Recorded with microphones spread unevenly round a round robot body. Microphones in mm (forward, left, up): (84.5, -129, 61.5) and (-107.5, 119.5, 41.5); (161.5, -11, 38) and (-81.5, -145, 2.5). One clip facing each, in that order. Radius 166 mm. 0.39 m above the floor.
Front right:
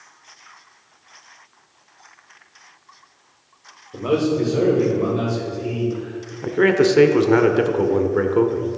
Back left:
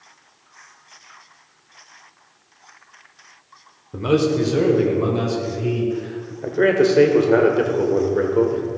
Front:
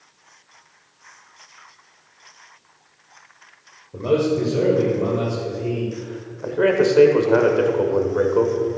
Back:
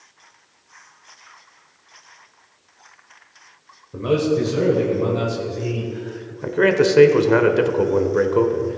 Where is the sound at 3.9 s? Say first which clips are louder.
Back left 1 dB, even; 150° left, 1.6 m; by 6.3 s 165° left, 2.5 m.